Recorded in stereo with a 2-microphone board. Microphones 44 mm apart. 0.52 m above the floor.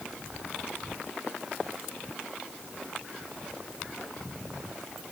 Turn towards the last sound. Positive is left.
No sound to turn to.